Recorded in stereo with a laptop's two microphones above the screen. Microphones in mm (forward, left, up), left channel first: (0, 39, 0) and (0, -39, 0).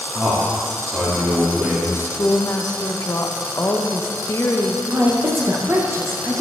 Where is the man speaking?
20° right (ahead or behind), 2.5 m.